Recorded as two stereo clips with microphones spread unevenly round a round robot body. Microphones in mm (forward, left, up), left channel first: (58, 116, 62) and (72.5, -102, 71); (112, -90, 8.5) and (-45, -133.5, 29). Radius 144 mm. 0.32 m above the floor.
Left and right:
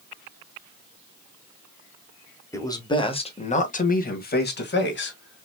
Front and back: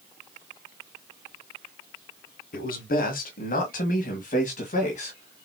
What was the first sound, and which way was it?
A man speaking, 20° left.